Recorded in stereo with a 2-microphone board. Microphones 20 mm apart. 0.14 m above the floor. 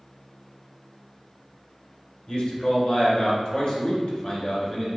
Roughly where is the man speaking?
Left.